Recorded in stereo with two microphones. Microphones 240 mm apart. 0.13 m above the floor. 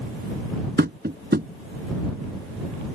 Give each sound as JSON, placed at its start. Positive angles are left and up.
{"t": 0.8, "sound": "tapping", "side_deg": -40}